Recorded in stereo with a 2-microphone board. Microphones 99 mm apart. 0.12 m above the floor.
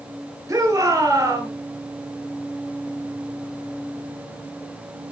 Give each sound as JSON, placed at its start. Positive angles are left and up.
{"t": 0.5, "sound": "a shout", "side_deg": -35, "distance_m": 2.5}